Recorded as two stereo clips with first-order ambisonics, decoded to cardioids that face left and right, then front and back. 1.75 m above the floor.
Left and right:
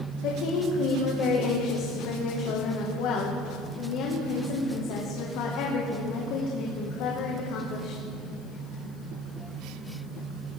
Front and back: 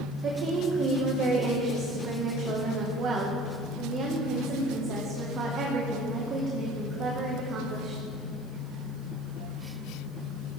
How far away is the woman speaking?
About 1.9 m.